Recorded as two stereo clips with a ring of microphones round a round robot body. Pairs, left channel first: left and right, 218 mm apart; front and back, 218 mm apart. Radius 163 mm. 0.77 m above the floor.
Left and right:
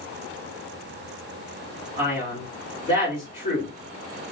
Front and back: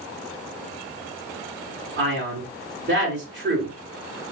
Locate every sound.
2.0 s a man speaking: 150° left, 2.0 m